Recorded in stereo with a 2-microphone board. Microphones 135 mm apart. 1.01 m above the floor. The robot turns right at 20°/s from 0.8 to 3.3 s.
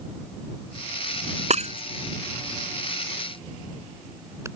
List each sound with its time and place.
1.5 s breaking glass: 55° right (ahead or behind); by 4.5 s 20° right (ahead or behind)